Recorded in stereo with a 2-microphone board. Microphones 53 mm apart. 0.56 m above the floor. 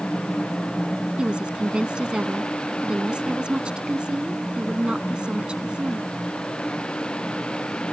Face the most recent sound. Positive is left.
turn(degrees=-20)  # may be behind; listen again after turning